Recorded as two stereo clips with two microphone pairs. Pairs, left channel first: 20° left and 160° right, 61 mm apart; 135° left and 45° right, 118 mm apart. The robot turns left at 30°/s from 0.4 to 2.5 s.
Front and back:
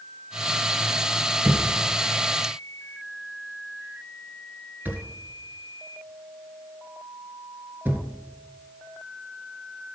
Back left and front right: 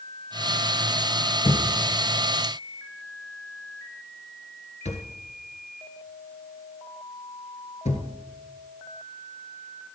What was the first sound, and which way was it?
A thud, 175° left.